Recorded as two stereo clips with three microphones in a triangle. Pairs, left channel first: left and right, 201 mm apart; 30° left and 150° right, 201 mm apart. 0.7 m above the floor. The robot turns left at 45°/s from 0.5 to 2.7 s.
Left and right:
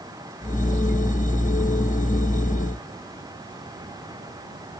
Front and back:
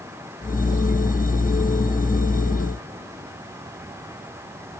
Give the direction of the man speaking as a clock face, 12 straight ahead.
I don't hear a man speaking.